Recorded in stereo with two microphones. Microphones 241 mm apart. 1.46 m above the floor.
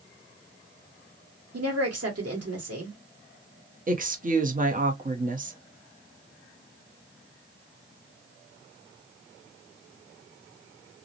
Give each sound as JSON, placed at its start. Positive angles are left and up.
{"t": 1.5, "sound": "a woman speaking", "side_deg": -80, "distance_m": 1.2}
{"t": 3.9, "sound": "a woman speaking", "side_deg": -35, "distance_m": 0.7}